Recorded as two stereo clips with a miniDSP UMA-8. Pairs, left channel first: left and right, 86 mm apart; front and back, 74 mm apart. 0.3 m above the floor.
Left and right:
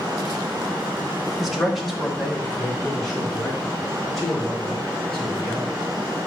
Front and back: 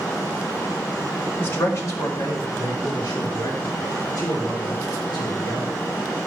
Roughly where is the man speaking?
Ahead.